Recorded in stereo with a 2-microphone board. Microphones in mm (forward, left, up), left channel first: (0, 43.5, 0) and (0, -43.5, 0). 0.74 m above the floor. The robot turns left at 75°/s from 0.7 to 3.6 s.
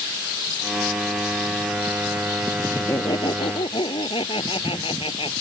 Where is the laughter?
155° left; by 5.3 s 90° left.